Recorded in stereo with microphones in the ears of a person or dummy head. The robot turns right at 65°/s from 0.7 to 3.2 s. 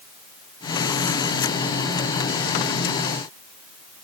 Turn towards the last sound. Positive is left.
No sound to turn to.